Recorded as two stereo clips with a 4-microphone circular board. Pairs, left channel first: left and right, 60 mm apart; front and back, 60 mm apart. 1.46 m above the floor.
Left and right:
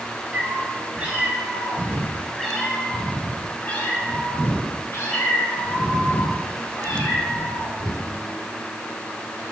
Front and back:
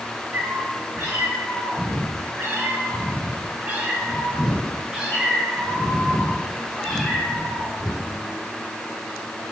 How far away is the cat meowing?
About 2.5 m.